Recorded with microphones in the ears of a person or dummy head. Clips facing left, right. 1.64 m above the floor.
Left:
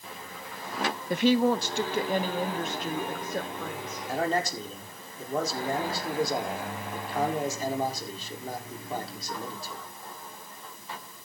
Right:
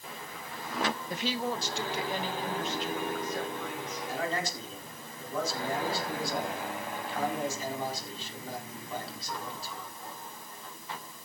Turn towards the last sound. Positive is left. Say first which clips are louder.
# left 6 dB
turn(degrees=40)  # may be behind; listen again after turning